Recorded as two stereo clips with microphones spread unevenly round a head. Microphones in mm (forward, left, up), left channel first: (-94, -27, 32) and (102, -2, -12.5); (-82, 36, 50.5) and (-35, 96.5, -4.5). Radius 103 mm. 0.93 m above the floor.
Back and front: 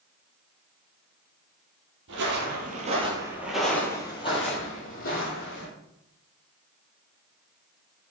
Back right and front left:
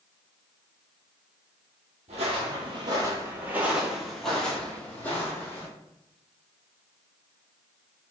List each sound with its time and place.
2.1 s footsteps: 5° right, 1.2 m; by 5.7 s 155° right, 1.9 m